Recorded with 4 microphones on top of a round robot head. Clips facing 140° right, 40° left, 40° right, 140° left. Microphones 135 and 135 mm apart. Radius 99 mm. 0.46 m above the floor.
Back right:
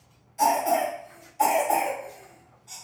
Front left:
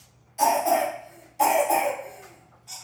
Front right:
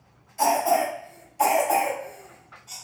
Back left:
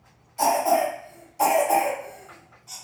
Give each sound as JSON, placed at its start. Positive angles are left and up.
{"t": 0.4, "sound": "a cough", "azimuth_deg": 90, "distance_m": 1.6}